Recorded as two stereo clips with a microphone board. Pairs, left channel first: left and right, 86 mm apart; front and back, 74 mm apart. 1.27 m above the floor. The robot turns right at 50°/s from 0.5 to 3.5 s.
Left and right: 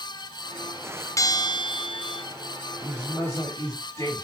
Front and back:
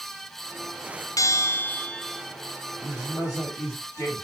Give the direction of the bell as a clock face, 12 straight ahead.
11 o'clock.